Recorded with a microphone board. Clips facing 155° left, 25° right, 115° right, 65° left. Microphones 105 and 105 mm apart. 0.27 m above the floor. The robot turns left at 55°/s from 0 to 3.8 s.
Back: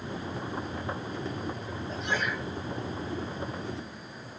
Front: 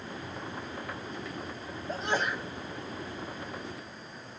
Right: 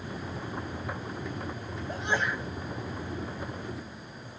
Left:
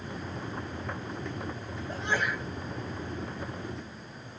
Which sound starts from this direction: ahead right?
A sneeze, at 1.9 s.